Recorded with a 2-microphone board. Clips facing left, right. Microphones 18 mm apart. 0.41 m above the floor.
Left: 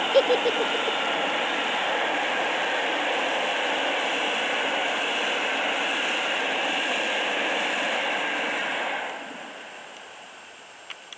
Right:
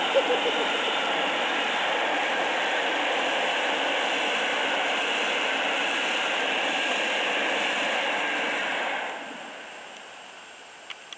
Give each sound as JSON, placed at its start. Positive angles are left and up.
{"t": 0.1, "sound": "a giggle", "side_deg": 70}